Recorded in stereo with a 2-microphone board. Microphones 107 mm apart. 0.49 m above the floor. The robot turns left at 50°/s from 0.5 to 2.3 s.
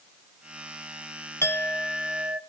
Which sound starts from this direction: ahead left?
A clink, at 1.4 s.